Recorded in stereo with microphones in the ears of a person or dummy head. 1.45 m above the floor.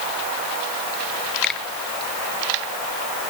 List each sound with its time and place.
1.4 s a finger snap: centre (ahead or behind)